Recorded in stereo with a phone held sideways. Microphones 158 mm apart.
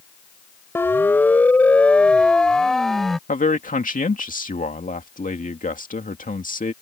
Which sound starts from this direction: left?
A man speaking, at 3.3 s.